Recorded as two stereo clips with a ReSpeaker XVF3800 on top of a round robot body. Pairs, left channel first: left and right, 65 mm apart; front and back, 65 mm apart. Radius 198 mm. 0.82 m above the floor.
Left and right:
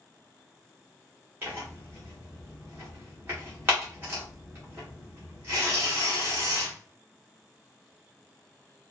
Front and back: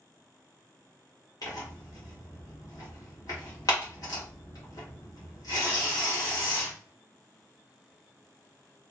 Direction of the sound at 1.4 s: 30° right.